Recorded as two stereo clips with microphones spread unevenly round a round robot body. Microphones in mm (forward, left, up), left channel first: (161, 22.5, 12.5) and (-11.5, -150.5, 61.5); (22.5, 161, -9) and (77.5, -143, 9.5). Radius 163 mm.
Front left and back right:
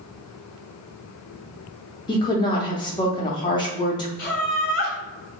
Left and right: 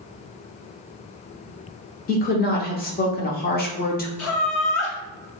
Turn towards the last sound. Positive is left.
turn(degrees=80)